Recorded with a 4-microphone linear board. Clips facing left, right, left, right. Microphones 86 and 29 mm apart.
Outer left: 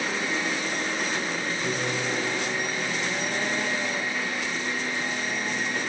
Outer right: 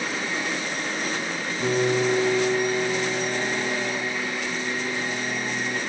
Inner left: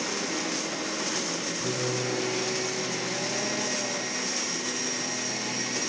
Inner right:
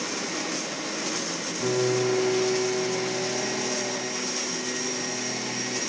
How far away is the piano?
About 9 m.